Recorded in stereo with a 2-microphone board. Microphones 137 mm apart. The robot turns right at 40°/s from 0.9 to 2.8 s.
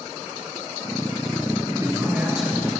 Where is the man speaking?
35° right, 1.6 m; by 2.7 s 10° left, 1.6 m.